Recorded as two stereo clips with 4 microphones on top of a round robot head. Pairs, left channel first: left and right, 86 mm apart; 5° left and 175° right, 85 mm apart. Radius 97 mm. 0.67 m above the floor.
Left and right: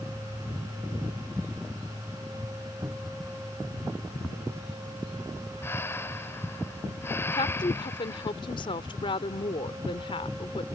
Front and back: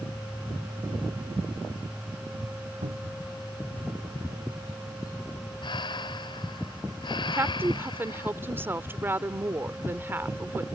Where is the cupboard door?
160° right.